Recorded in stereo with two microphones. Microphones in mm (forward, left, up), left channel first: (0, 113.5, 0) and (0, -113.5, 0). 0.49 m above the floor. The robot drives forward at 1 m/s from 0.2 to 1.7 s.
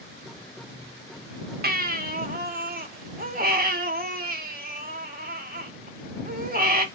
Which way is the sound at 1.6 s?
45° right (ahead or behind).